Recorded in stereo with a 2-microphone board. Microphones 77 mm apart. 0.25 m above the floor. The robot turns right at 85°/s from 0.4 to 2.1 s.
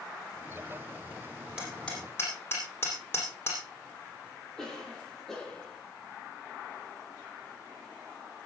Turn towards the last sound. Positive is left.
turn(degrees=5)  # may be behind; listen again after turning